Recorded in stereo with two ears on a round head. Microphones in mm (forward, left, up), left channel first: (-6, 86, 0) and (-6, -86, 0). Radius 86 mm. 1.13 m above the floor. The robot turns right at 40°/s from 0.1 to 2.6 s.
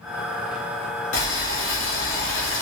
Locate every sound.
1.1 s boiling: 40° left, 1.7 m; by 2.6 s 100° left, 1.7 m